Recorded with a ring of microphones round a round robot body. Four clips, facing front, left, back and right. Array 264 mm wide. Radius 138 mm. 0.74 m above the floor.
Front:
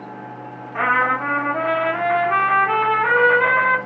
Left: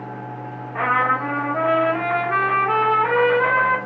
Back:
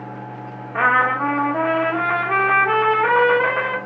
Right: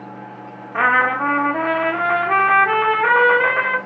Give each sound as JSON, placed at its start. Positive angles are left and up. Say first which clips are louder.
{"t": 0.7, "sound": "a trumpet", "louder": "right 3 dB, back 1 dB", "azimuth_deg": -120, "distance_m": 0.9}